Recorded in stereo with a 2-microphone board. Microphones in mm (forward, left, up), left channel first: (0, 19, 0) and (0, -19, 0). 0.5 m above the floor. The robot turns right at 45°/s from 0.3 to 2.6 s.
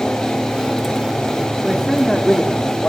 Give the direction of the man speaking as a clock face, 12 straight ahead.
12 o'clock.